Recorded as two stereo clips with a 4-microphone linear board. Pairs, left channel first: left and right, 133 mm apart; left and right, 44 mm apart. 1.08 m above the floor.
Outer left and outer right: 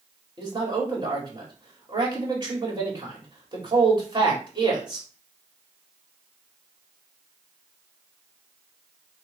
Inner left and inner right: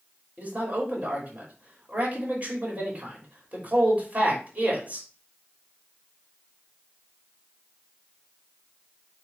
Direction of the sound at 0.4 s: 30° right (ahead or behind).